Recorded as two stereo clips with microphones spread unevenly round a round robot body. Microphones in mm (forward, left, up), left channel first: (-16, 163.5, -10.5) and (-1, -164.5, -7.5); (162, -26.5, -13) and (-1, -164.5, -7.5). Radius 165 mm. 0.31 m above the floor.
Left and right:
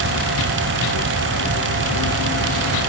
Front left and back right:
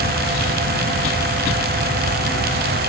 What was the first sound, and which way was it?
Only background noise.